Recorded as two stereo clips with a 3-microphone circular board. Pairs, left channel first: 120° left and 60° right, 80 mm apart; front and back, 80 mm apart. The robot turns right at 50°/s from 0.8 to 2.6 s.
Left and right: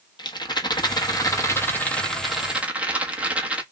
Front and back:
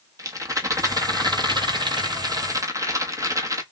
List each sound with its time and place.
0.2 s a rattle: 135° left, 1.0 m; by 3.6 s 135° right, 1.0 m